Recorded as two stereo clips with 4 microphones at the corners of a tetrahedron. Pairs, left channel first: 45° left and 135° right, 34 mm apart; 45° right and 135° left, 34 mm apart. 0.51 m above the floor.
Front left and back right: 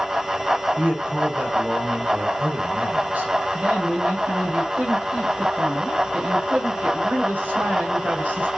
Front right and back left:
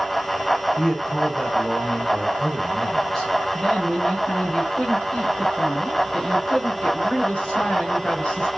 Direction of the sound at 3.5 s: 115° right.